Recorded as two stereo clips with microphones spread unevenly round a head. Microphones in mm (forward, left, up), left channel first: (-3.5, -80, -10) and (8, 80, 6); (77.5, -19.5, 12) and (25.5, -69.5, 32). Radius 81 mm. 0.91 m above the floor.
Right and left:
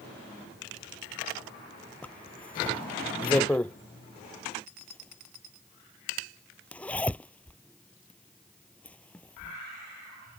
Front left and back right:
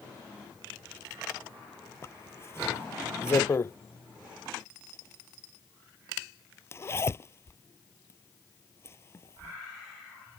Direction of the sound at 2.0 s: 10° right.